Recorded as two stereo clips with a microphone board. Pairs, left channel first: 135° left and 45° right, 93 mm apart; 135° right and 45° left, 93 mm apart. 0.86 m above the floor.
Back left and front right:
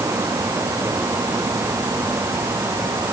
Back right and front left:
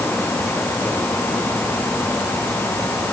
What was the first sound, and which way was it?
Only background noise.